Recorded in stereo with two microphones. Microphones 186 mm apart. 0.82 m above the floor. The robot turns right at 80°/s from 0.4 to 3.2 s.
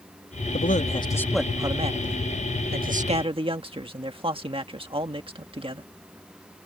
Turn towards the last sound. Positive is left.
turn(degrees=-35)